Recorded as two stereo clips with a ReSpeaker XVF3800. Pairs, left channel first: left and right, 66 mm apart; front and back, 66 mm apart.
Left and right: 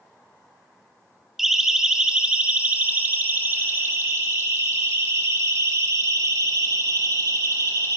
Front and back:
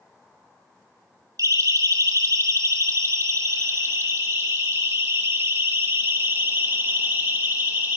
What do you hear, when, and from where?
1.4 s a siren: 175° right, 3 m; by 8.0 s 120° right, 6.5 m